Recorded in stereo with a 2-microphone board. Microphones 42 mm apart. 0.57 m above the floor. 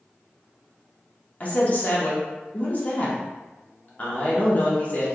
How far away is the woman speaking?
About 1.0 m.